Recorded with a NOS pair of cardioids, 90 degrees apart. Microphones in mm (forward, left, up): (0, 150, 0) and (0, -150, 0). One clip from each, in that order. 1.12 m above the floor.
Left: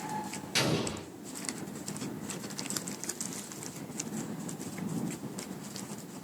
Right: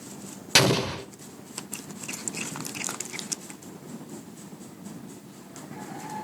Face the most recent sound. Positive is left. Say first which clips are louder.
# right 9 dB
turn(degrees=-65)